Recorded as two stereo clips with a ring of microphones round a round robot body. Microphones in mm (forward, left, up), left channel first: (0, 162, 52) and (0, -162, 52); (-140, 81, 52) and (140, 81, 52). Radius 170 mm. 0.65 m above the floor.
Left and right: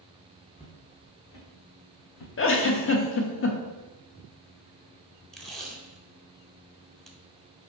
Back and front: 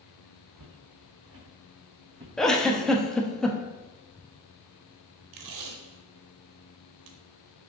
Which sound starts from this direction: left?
A giggle, at 2.4 s.